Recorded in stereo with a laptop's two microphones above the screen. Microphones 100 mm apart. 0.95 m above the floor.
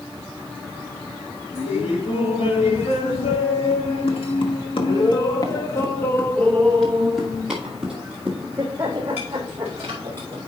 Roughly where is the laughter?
Left.